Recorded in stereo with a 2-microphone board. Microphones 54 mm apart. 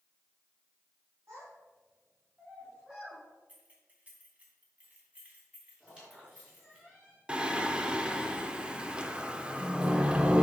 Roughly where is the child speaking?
Right.